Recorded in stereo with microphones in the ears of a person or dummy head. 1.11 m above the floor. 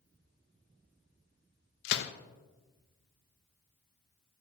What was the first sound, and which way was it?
A gunshot, 60° left (ahead or behind).